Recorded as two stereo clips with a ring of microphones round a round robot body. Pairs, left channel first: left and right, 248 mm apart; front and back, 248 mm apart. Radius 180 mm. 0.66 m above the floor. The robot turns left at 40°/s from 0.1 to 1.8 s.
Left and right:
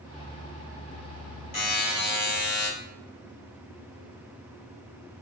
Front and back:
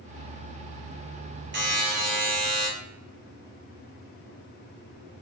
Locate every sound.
1.5 s a buzzer: 135° left, 3.5 m; by 2.7 s 125° left, 3.5 m